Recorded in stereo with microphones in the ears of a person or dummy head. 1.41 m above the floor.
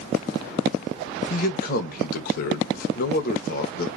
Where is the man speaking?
50° left (ahead or behind), 1.0 m.